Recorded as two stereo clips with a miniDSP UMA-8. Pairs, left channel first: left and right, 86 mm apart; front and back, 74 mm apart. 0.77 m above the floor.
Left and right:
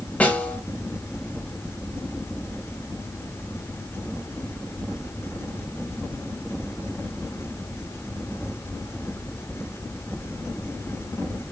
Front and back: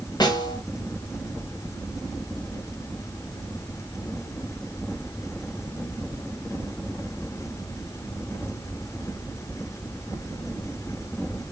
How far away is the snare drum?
About 1.2 m.